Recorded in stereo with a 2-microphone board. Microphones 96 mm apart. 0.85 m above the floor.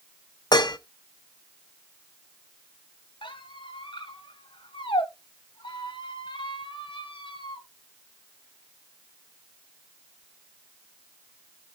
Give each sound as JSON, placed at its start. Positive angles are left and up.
{"t": 0.5, "sound": "dishes clattering", "side_deg": 45, "distance_m": 0.8}
{"t": 3.2, "sound": "a squeak", "side_deg": 55, "distance_m": 1.8}